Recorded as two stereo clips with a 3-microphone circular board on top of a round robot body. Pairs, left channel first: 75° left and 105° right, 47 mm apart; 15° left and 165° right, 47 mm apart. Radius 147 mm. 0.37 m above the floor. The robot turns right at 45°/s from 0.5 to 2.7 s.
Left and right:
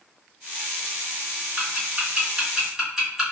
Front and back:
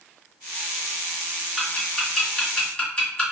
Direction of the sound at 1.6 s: 80° right.